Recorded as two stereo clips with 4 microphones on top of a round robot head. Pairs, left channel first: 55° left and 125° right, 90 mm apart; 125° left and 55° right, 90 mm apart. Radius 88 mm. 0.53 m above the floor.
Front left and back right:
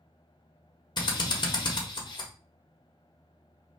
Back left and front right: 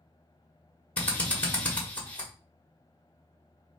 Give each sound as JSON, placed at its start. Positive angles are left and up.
{"t": 1.0, "sound": "a drill", "azimuth_deg": 60, "distance_m": 1.3}